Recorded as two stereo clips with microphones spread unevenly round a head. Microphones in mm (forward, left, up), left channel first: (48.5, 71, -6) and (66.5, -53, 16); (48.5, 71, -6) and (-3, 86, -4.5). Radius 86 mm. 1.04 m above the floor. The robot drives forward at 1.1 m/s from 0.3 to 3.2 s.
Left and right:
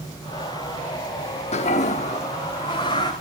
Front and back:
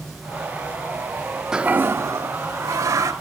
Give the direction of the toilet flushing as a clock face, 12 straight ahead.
9 o'clock.